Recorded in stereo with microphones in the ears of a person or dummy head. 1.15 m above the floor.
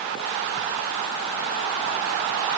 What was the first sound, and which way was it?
Only background noise.